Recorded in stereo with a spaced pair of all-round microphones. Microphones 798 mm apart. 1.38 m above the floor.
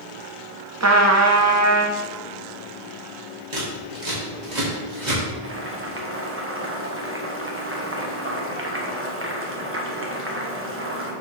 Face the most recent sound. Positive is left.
turn(degrees=-15)  # may be behind; listen again after turning